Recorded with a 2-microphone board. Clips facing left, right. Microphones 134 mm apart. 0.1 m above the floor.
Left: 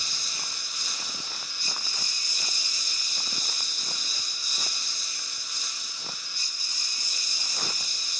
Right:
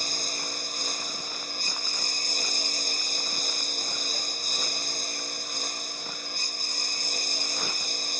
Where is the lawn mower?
50° right (ahead or behind).